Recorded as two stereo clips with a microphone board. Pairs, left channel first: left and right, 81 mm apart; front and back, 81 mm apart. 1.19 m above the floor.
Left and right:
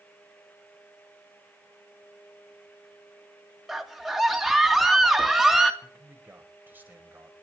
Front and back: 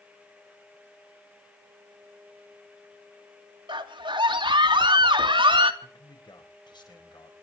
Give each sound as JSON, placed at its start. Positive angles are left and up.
{"t": 3.7, "sound": "a scream", "azimuth_deg": -175, "distance_m": 2.5}
{"t": 5.8, "sound": "a man speaking", "azimuth_deg": -25, "distance_m": 5.0}